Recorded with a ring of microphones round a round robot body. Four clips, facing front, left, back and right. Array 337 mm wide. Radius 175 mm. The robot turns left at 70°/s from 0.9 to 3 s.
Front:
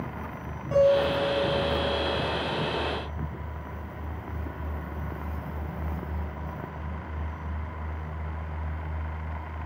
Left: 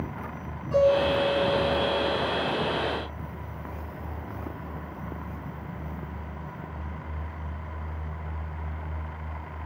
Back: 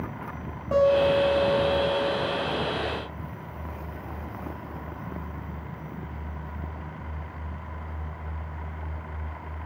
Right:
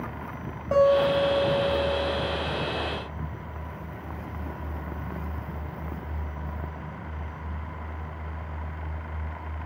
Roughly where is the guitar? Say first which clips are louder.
Right 2 dB, back 1 dB; behind right.